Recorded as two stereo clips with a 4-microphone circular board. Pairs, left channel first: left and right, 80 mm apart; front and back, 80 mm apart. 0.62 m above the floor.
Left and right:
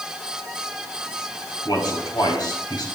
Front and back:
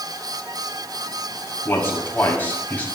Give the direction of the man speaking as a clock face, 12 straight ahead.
10 o'clock.